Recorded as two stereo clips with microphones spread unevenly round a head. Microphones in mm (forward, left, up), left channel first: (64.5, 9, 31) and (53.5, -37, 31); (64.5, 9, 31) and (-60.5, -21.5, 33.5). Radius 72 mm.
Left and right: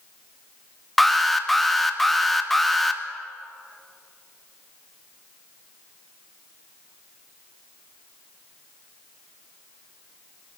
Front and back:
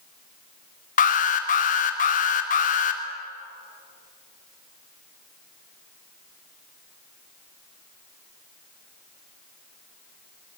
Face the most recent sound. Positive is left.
turn(degrees=-10)